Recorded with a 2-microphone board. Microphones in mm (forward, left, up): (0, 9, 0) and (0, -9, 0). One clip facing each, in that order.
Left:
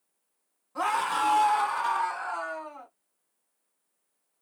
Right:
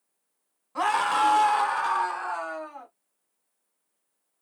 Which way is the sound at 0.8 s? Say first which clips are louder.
Right 3 dB; 25° right (ahead or behind).